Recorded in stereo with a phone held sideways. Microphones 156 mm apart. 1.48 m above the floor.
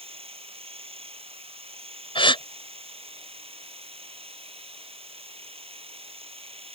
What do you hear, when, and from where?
0.0 s a machine running: 40° right (ahead or behind)
2.1 s a gasp: 35° left (ahead or behind)